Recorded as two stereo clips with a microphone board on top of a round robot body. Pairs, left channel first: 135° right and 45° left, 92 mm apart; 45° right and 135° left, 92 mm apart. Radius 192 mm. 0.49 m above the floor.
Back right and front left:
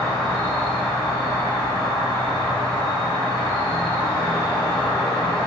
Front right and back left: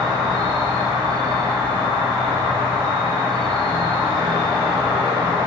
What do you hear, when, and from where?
0.0 s an insect: 165° left, 2.0 m